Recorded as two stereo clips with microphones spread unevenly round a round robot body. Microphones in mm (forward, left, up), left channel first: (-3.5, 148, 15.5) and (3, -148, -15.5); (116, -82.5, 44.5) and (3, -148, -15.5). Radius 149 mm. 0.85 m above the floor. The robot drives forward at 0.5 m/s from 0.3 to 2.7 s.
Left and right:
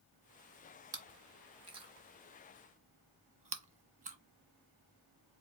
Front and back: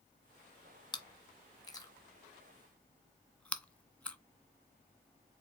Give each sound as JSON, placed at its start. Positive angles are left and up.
{"t": 0.9, "sound": "chewing", "azimuth_deg": -10, "distance_m": 1.7}